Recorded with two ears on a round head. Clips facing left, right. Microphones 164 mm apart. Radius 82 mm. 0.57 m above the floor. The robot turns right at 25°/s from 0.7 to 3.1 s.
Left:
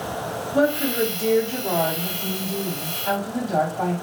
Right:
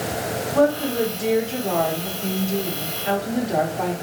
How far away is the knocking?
I don't hear knocking.